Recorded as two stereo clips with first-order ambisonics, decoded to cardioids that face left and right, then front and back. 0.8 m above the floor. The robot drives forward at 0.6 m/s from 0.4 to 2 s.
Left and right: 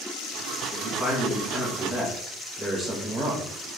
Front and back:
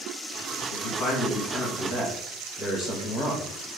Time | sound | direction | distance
0.7 | a man speaking | 15° right | 1.5 m